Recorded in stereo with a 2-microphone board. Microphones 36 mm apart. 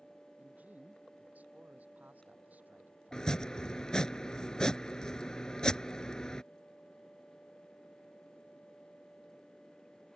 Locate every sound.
0.4 s a man speaking: 45° right (ahead or behind)
3.1 s chopping: 15° left (ahead or behind)